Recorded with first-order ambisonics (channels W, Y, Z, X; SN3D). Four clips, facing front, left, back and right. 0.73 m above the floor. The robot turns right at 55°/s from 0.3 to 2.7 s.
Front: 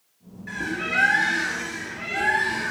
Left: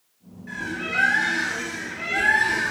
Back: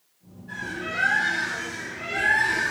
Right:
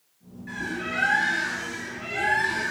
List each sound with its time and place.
0.5 s a bird: straight ahead, 5 m; by 2.7 s 120° left, 5 m